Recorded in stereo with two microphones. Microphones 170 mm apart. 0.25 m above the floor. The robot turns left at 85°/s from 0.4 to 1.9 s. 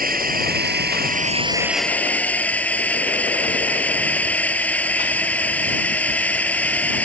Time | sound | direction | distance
0.0 | a drone | 60° right | ?